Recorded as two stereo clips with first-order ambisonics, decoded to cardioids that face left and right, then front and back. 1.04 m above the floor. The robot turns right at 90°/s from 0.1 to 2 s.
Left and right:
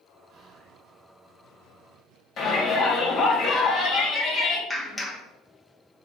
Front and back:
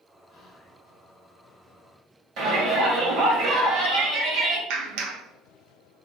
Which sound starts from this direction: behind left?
A shout, at 2.4 s.